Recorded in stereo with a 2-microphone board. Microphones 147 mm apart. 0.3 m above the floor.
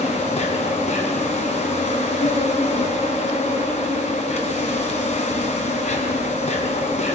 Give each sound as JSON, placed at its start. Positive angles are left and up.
{"t": 0.0, "sound": "an insect", "side_deg": 50, "distance_m": 4.0}